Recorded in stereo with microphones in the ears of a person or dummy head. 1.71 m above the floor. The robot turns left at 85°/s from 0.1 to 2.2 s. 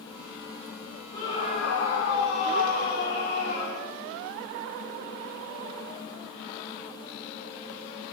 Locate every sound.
1.1 s a scream: 135° right, 3 m; by 3.9 s 135° left, 3 m